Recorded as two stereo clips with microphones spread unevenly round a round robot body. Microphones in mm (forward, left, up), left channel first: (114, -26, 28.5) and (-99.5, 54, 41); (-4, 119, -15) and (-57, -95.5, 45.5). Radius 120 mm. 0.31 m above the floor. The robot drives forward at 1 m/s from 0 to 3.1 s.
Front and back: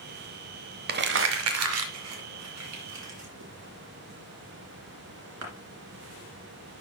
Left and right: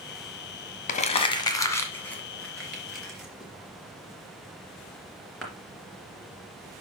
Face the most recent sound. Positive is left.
turn(degrees=165)